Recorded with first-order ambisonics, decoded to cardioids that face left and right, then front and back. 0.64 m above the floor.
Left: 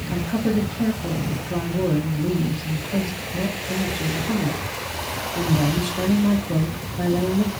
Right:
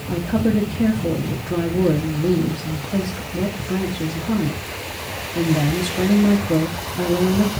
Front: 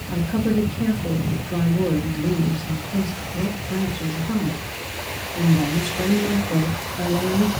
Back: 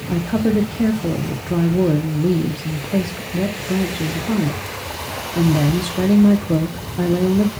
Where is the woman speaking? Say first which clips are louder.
Right 3 dB, back 4 dB; 160° right, 0.8 m.